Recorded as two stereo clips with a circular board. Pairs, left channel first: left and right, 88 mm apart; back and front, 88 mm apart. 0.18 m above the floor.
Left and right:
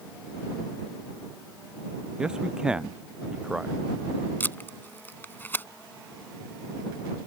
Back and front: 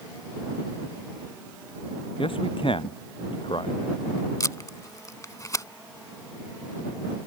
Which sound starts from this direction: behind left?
Tape being pulled, at 4.4 s.